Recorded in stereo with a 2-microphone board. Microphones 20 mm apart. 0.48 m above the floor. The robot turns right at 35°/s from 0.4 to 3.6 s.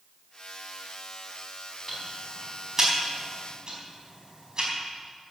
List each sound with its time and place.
1.9 s ticking: 10° left (ahead or behind), 4.5 m; by 4.7 s 45° right (ahead or behind), 4.5 m